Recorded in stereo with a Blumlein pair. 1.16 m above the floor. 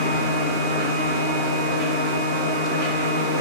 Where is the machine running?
30° right, 1.8 m.